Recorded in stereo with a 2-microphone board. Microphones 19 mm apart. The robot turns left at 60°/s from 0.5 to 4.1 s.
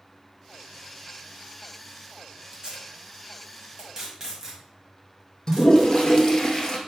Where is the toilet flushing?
40° left (ahead or behind), 1.1 m.